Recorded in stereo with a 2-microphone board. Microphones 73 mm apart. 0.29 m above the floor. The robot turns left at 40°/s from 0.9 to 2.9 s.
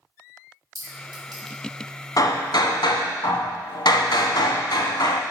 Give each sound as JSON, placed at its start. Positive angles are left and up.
{"t": 0.8, "sound": "a clink", "side_deg": -65, "distance_m": 2.0}
{"t": 2.2, "sound": "hammering", "side_deg": 55, "distance_m": 0.7}